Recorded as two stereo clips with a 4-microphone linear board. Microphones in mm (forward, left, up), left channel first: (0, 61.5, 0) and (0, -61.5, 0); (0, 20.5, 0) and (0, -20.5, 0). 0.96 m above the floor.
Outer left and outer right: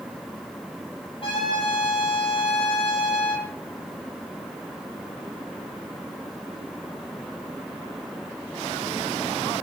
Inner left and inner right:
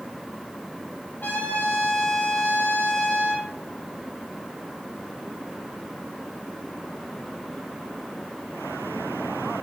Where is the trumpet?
50° left (ahead or behind), 5.5 m.